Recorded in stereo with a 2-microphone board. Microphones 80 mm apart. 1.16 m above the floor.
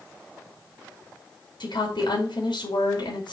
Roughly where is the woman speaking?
Left.